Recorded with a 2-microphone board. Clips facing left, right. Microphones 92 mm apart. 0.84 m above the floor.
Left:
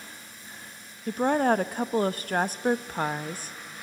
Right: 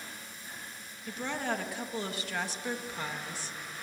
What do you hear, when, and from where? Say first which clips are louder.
1.1 s a woman speaking: left 12 dB; 50° left (ahead or behind), 0.7 m